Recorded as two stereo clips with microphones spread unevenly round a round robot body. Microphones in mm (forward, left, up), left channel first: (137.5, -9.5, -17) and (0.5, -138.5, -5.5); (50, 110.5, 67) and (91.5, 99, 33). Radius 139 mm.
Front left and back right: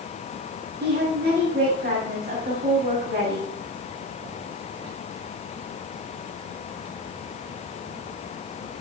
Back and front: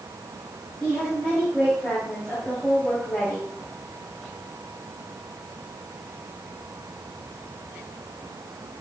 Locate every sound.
0.8 s a woman speaking: 110° right, 5 m